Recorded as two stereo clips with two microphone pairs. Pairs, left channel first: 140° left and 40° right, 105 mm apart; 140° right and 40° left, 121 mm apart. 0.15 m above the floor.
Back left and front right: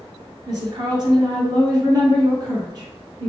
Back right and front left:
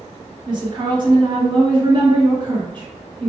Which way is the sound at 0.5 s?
Straight ahead.